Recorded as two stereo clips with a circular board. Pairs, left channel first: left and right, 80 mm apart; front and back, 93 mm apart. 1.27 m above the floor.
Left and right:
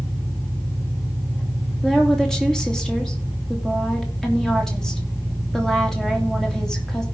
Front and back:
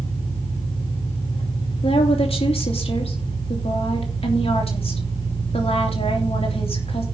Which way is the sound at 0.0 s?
30° left.